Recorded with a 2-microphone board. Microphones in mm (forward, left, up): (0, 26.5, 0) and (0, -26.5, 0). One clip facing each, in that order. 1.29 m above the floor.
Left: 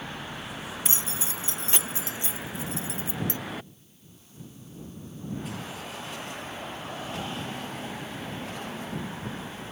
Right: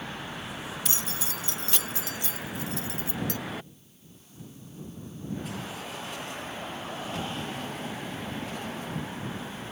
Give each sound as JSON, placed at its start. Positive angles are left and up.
{"t": 0.8, "sound": "keys jangling", "side_deg": 25}